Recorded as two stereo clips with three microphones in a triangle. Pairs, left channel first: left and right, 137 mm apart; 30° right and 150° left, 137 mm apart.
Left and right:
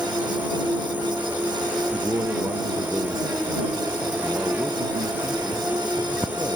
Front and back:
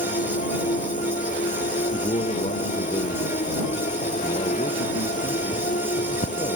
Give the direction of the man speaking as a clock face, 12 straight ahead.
1 o'clock.